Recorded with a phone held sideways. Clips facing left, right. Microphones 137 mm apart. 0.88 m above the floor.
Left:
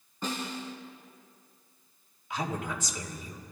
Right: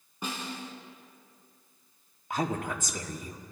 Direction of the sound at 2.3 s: 45° right (ahead or behind).